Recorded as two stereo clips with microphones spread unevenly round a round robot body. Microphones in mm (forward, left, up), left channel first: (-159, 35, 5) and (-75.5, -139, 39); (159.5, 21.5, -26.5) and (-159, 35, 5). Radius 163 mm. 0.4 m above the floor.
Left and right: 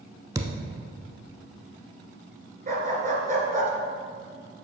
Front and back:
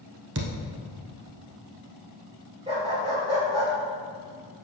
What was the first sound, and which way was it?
A thud, 135° right.